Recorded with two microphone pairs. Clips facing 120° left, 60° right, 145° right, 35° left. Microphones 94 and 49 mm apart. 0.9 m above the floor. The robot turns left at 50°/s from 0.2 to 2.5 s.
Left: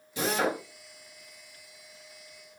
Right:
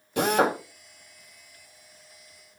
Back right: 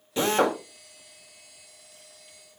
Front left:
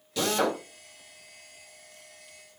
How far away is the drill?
About 2 m.